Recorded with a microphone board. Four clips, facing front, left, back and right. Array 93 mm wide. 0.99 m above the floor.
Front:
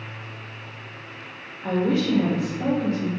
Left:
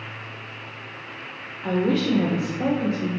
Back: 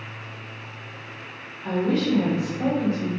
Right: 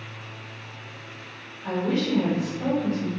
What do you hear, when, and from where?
1.6 s a woman speaking: 55° left, 0.7 m; by 3.1 s 135° left, 1.0 m